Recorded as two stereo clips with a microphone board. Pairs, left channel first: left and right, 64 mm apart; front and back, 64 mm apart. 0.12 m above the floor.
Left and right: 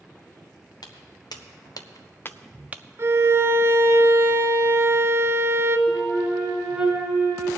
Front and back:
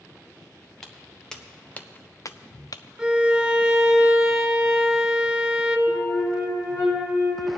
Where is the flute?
5° right, 3.5 m.